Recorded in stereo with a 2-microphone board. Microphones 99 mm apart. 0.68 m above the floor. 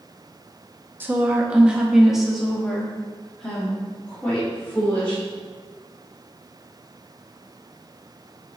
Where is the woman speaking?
20° right (ahead or behind), 0.8 m; by 5.2 s 15° left (ahead or behind), 2 m.